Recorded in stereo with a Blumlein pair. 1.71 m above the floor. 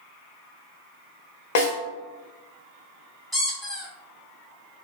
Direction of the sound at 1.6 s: 50° left.